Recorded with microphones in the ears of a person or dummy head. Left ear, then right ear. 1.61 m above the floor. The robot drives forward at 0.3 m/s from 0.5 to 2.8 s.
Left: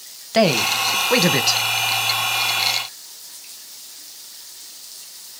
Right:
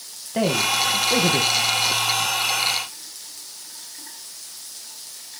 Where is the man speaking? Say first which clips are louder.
Left 4 dB; 65° left (ahead or behind), 1.5 m; by 1.6 s 75° left (ahead or behind), 1.4 m.